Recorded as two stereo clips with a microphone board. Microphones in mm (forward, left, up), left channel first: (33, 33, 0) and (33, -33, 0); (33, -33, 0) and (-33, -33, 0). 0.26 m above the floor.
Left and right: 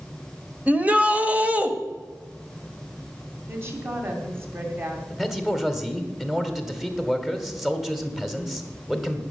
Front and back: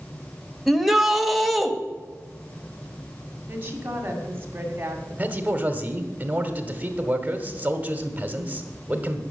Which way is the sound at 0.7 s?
95° right.